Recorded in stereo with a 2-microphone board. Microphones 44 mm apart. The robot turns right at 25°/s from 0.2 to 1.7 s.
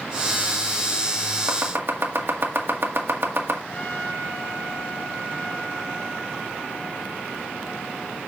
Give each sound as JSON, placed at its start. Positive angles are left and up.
{"t": 1.5, "sound": "chopping", "side_deg": -60, "distance_m": 1.8}
{"t": 3.7, "sound": "a trumpet", "side_deg": 40, "distance_m": 3.5}